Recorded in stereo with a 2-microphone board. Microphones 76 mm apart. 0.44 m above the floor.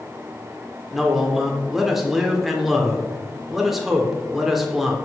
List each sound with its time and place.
0.9 s a man speaking: centre (ahead or behind), 1.1 m